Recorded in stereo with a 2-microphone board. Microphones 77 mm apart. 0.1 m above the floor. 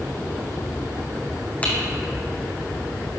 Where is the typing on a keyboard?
20° left (ahead or behind), 2 m.